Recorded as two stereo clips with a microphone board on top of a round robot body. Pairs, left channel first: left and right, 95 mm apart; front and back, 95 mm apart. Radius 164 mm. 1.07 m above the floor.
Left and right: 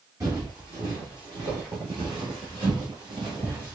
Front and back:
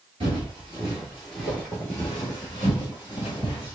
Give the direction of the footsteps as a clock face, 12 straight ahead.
5 o'clock.